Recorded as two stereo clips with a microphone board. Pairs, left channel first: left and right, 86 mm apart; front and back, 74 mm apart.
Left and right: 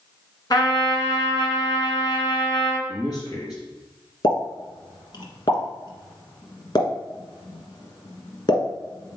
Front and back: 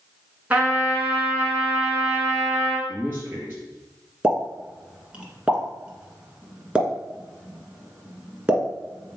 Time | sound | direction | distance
0.5 | a trumpet | 115° left | 2 m
2.9 | a man speaking | 120° left | 3.5 m
4.2 | a pop | 105° left | 1.6 m